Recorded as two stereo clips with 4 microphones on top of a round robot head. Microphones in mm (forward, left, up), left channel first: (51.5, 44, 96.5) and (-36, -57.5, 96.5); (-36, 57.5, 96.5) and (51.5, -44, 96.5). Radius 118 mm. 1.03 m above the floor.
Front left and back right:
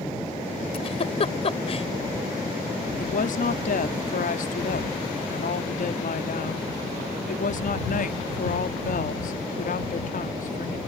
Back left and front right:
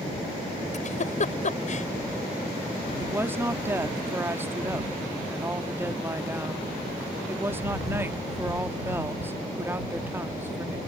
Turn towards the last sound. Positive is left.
turn(degrees=25)